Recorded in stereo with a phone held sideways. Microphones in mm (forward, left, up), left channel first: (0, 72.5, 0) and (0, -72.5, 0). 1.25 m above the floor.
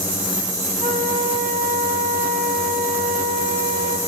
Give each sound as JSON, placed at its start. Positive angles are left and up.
{"t": 0.8, "sound": "a flute", "side_deg": -60, "distance_m": 2.0}